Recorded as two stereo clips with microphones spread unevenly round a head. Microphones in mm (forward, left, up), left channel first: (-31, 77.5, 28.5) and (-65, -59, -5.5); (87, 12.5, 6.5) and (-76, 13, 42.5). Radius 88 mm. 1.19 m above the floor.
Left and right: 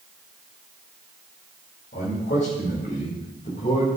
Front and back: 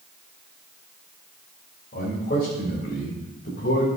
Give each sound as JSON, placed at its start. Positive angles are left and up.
{"t": 1.9, "sound": "a man speaking", "azimuth_deg": 40, "distance_m": 5.0}